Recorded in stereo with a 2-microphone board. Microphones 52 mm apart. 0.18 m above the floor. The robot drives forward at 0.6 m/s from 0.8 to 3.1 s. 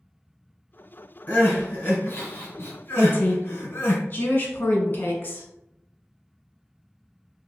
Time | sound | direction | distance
1.3 | crying | 35° left (ahead or behind) | 1.6 m
3.0 | a woman speaking | 40° left (ahead or behind) | 1.3 m